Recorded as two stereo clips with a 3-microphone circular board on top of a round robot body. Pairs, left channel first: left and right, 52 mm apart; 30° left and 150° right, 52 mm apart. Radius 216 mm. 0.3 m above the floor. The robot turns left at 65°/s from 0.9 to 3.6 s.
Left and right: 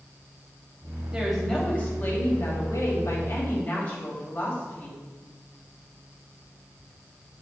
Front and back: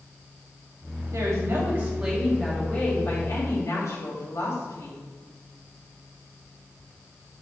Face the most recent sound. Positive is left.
turn(degrees=30)